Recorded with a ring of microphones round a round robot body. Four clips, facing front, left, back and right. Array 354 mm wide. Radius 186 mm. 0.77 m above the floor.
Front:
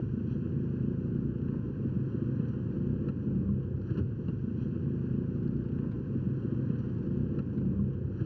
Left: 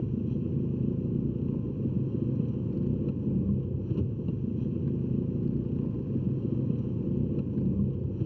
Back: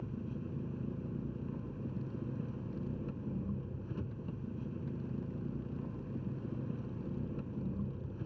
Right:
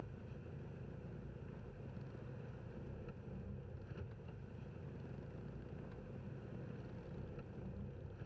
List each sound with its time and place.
0.0 s an engine running: 65° left